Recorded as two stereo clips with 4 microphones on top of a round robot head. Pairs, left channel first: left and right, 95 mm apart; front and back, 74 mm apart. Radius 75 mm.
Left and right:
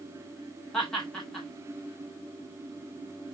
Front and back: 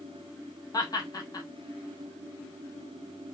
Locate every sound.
0.7 s laughter: 10° left, 1.6 m